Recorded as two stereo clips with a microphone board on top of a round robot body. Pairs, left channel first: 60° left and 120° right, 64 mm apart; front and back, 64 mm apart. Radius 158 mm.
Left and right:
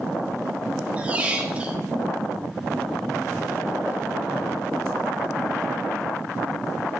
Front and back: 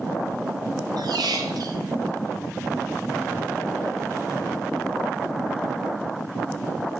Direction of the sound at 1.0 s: 170° left.